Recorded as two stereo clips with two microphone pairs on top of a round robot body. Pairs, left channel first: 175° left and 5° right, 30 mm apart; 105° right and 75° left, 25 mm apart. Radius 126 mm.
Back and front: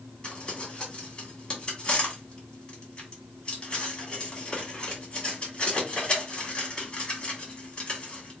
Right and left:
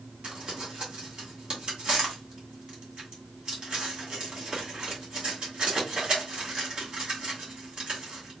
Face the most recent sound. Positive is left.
turn(degrees=130)